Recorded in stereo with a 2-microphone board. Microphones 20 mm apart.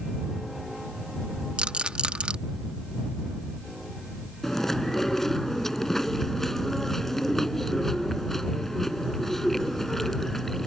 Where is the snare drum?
I don't hear a snare drum.